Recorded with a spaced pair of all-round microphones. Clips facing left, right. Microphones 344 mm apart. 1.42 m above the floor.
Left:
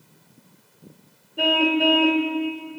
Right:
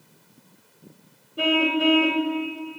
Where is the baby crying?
I don't hear a baby crying.